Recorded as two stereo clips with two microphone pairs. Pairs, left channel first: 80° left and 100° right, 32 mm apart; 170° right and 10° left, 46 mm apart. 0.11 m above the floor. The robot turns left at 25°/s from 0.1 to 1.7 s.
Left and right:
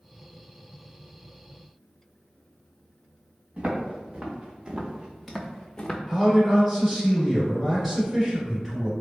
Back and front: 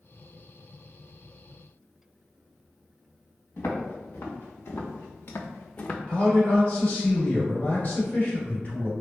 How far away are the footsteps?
About 1.4 m.